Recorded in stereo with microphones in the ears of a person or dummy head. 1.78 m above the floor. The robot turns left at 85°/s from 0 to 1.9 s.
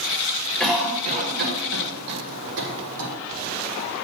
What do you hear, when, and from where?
0.6 s a cough: 5° left (ahead or behind), 1.5 m; by 3.1 s 70° right (ahead or behind), 1.5 m